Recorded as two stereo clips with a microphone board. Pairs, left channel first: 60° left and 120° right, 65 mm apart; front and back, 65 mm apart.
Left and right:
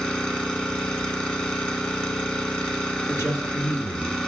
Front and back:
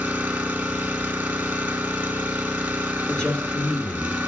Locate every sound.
0.0 s an engine running: 130° left, 0.8 m
3.1 s a man speaking: 60° left, 1.4 m